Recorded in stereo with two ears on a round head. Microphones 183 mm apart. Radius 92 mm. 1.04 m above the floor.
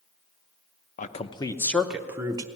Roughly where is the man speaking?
Left.